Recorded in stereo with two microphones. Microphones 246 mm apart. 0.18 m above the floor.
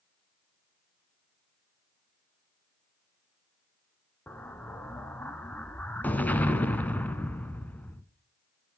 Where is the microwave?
I don't hear a microwave.